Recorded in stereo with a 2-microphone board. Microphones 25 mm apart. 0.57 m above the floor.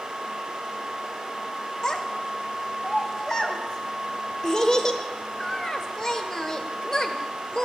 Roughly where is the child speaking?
Left.